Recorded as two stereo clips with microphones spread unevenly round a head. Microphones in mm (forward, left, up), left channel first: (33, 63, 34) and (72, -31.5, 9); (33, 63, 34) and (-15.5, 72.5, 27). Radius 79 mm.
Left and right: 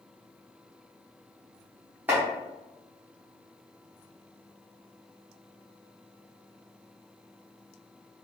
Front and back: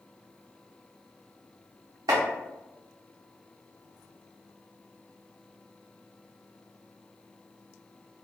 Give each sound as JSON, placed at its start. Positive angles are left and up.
{"t": 2.1, "sound": "chopping", "azimuth_deg": -150, "distance_m": 0.6}